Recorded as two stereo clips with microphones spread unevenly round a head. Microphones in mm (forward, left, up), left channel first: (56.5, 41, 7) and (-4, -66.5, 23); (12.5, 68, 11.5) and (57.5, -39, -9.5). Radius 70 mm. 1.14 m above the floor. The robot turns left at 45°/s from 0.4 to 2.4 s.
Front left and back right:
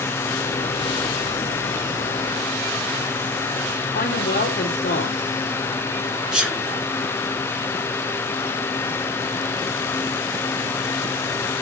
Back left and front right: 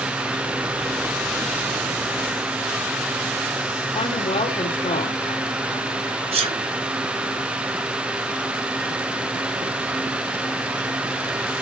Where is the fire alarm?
I don't hear a fire alarm.